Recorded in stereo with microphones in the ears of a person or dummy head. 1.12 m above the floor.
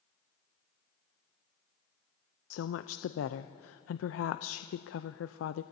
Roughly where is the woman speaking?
Left.